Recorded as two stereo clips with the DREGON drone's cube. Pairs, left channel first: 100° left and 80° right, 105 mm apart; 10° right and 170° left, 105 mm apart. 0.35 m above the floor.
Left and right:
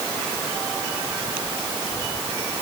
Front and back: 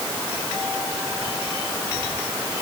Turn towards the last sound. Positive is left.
No sound to turn to.